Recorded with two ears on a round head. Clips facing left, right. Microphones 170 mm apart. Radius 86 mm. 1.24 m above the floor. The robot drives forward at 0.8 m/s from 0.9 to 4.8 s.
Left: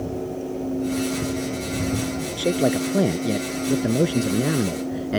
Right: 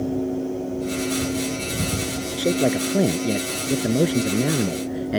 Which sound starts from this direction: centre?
A man speaking, at 2.4 s.